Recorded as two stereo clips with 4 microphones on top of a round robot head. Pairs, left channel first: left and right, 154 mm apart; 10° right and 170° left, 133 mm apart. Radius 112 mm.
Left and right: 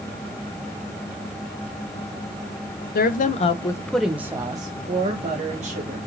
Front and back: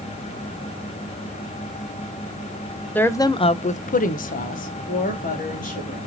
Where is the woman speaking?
70° left, 0.7 m; by 6.0 s 40° right, 1.9 m.